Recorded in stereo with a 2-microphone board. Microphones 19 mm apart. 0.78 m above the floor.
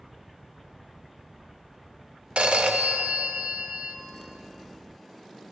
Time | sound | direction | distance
2.4 | a phone ringing | 80° right | 0.6 m